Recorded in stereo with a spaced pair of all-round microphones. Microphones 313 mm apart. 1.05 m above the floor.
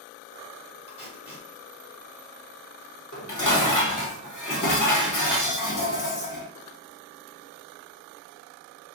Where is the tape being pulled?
20° left (ahead or behind), 1.0 m.